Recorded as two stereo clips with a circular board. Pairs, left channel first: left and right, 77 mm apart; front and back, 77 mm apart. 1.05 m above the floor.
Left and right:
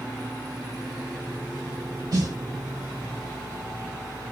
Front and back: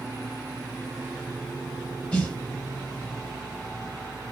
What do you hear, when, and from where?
2.1 s a snare drum: 75° right, 1.3 m